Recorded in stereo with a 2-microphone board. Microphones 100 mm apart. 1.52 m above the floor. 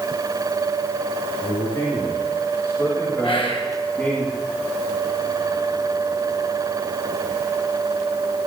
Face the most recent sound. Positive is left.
turn(degrees=60)  # may be behind; listen again after turning